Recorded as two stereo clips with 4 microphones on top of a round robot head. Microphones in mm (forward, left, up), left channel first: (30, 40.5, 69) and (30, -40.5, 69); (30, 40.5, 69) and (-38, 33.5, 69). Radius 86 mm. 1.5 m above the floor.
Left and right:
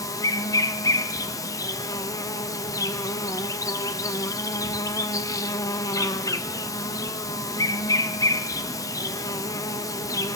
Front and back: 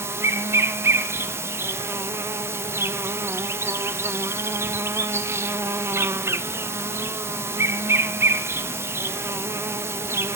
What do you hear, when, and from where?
0.0 s an insect: 135° left, 0.8 m